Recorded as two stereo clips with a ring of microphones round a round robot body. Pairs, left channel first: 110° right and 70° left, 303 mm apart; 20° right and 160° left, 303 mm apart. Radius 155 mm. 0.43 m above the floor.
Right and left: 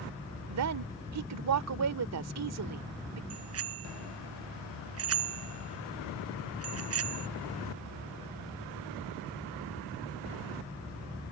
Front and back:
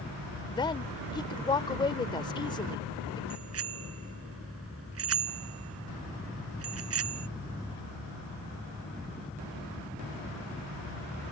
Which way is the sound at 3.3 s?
110° left.